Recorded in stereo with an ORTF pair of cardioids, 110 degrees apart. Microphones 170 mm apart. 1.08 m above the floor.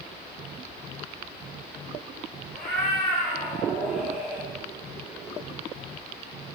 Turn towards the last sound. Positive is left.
turn(degrees=-20)